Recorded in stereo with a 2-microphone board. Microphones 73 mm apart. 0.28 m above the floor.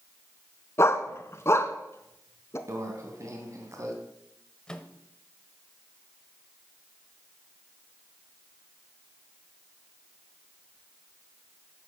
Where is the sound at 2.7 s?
45° right (ahead or behind), 2 m.